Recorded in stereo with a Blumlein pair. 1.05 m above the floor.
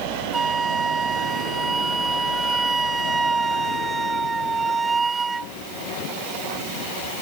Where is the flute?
10° right.